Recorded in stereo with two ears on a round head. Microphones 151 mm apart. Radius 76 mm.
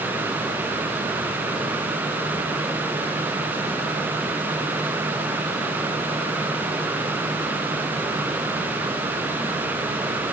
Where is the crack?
No crack in this recording.